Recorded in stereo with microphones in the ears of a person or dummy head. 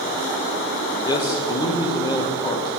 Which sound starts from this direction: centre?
A man speaking, at 1.1 s.